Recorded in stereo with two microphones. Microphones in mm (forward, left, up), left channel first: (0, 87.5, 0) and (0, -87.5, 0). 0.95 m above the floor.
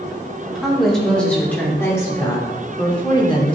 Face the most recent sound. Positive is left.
turn(degrees=30)  # may be behind; listen again after turning